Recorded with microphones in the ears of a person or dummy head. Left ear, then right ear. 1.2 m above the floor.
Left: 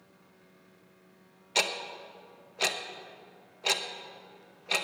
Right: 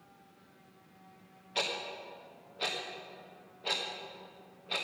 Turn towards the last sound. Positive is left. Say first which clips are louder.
# left 5 dB
turn(degrees=85)